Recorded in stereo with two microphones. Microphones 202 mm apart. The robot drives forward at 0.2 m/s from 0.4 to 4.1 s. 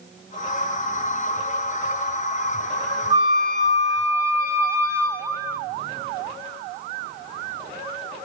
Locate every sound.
3.1 s a flute: 15° right (ahead or behind), 1.2 m